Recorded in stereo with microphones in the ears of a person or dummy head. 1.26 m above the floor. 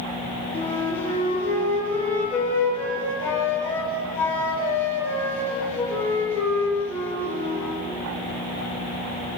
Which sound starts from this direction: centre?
A flute, at 0.5 s.